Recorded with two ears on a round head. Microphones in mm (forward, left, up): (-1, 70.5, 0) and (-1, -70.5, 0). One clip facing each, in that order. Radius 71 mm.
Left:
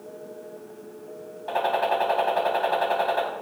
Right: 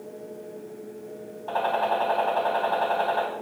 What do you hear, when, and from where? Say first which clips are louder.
1.5 s a gunshot: left 1 dB; 20° left (ahead or behind), 4 m